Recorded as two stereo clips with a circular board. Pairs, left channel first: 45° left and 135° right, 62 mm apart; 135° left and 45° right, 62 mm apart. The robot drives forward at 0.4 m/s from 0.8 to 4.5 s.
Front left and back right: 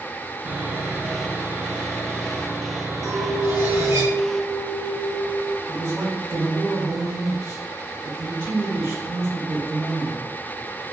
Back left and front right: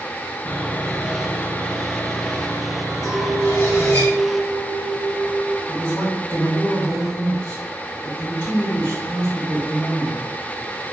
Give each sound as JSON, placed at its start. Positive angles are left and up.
{"t": 0.5, "sound": "sawing", "azimuth_deg": 180, "distance_m": 0.8}
{"t": 3.0, "sound": "a clink", "azimuth_deg": -130, "distance_m": 1.4}
{"t": 5.7, "sound": "a man speaking", "azimuth_deg": 175, "distance_m": 2.0}